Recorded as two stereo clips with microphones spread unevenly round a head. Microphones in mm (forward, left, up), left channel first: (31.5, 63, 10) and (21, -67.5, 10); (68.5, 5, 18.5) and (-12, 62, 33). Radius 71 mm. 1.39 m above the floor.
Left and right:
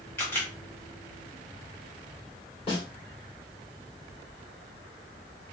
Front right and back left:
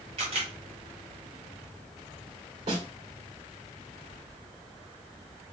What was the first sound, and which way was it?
A camera shutter, 160° left.